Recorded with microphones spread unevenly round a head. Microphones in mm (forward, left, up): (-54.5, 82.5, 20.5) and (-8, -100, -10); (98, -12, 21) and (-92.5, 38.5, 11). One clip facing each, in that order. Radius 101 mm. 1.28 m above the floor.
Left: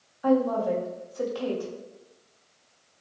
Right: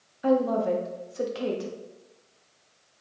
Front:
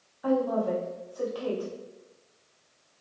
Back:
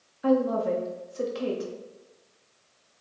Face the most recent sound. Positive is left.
turn(degrees=-135)